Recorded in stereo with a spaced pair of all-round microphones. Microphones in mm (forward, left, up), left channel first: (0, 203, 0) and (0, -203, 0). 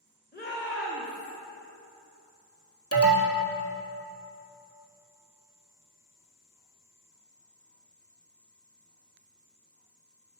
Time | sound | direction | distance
0.3 | a shout | 20° left (ahead or behind) | 2.0 m
2.9 | an alarm | 35° left (ahead or behind) | 1.6 m